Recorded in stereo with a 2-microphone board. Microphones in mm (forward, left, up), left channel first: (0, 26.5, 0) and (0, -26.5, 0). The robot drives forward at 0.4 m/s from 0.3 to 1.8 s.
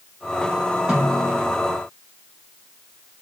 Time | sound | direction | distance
0.9 | a snare drum | 20° right (ahead or behind) | 1.4 m